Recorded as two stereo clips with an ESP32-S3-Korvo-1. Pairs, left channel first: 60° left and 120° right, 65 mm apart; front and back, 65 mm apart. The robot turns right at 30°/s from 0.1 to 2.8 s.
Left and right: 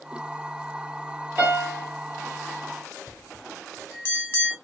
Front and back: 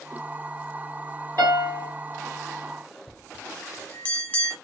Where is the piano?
175° left, 2 m; by 1.9 s 170° right, 2 m.